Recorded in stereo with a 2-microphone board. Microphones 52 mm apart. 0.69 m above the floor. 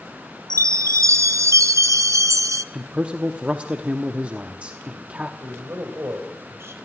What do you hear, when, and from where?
0.5 s a chime: 80° right, 0.6 m
2.7 s a man speaking: 25° right (ahead or behind), 0.9 m
5.4 s a man speaking: 55° right (ahead or behind), 4 m